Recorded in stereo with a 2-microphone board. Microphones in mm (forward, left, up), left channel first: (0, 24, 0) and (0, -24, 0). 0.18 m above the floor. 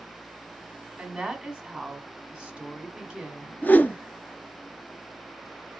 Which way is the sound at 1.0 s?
20° right (ahead or behind).